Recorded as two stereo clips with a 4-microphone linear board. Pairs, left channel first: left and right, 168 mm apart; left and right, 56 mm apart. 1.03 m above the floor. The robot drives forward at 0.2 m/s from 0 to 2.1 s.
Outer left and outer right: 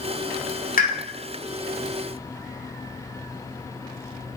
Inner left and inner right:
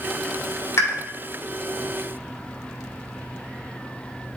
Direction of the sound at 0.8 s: 55° left (ahead or behind).